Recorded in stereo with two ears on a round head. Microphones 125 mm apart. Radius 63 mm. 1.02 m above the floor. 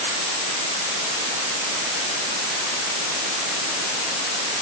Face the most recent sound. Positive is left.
No sound to turn to.